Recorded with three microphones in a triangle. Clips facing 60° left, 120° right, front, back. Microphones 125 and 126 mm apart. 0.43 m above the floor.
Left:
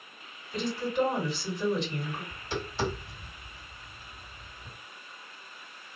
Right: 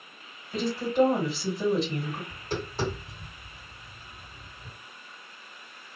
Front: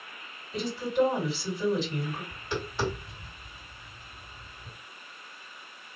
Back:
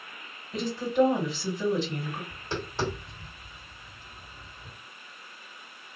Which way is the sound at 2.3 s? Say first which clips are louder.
Right 2 dB, even; 130° right.